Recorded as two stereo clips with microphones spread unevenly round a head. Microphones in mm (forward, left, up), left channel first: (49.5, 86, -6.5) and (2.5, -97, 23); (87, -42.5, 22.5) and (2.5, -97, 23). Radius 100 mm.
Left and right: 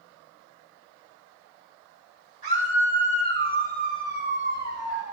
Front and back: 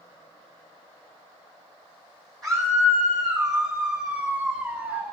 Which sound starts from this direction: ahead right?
A scream, at 2.4 s.